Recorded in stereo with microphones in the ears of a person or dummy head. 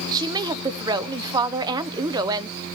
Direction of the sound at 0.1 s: 20° right (ahead or behind).